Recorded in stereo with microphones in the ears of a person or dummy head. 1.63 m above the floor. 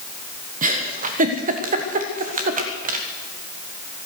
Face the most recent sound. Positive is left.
turn(degrees=-45)  # may be behind; listen again after turning